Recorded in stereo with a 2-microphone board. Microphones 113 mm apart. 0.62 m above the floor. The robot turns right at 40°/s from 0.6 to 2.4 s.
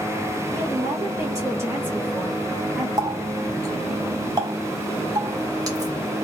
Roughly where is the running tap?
Right.